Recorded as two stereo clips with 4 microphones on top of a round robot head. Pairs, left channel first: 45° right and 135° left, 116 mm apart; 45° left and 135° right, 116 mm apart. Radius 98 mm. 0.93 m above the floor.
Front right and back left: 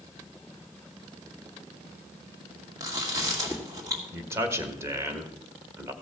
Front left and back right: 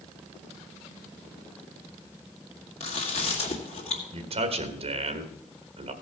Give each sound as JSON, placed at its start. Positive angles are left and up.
{"t": 2.8, "sound": "chewing", "azimuth_deg": 75, "distance_m": 2.0}
{"t": 4.1, "sound": "a man speaking", "azimuth_deg": -160, "distance_m": 1.5}